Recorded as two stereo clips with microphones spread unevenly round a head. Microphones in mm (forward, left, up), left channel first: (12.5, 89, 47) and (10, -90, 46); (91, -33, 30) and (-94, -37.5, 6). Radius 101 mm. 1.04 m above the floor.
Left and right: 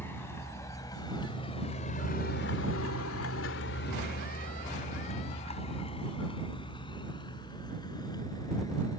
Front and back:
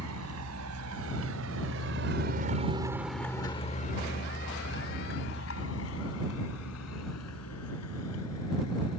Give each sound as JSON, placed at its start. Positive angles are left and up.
{"t": 0.0, "sound": "a vehicle", "azimuth_deg": 170}